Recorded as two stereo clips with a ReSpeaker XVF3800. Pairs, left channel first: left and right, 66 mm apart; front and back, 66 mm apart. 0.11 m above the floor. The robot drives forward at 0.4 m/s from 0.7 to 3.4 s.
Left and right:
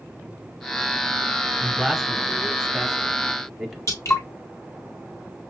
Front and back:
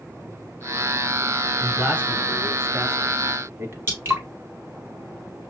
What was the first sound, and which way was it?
A man speaking, 170° right.